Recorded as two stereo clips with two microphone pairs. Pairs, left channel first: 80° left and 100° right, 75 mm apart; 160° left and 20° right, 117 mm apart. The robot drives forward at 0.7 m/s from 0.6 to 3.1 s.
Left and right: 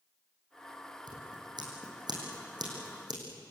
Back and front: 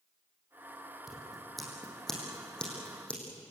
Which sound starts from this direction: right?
Scissors, at 1.1 s.